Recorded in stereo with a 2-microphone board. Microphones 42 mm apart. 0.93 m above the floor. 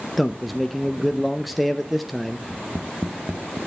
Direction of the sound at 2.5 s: 45° right (ahead or behind).